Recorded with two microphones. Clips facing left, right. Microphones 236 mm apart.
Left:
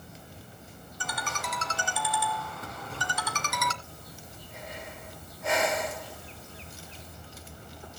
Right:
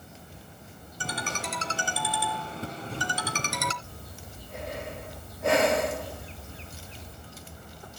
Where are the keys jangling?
I don't hear keys jangling.